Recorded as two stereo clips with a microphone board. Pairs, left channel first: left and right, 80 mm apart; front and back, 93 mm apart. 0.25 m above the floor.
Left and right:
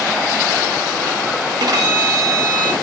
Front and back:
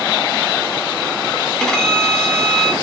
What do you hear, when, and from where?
1.6 s a violin: 85° right, 0.7 m